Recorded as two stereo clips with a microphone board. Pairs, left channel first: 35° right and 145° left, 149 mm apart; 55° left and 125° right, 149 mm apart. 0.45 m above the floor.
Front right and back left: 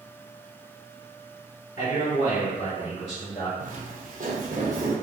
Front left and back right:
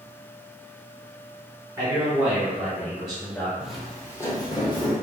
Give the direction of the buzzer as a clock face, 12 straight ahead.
No buzzer in this recording.